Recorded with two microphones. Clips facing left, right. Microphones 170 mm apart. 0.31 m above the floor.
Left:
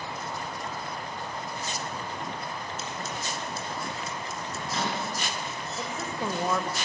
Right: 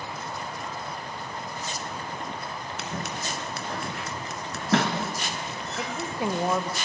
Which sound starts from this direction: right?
Scissors, at 2.8 s.